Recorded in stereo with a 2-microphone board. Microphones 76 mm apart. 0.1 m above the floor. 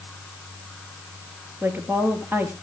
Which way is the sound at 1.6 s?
25° right (ahead or behind).